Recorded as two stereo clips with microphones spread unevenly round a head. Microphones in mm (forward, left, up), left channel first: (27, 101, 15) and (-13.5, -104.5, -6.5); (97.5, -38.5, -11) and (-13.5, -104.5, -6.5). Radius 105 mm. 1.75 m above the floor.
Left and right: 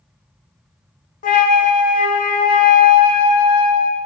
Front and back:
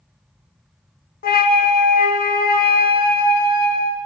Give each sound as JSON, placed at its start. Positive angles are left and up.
{"t": 1.2, "sound": "a flute", "azimuth_deg": 25, "distance_m": 0.6}